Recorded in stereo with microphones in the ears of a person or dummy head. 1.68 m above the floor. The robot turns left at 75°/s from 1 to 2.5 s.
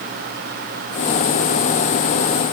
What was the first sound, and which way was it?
Only background noise.